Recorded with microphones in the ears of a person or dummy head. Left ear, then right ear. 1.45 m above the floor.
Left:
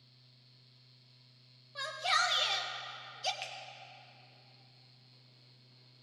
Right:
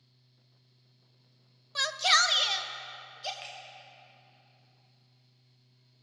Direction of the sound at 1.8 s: 45° right (ahead or behind).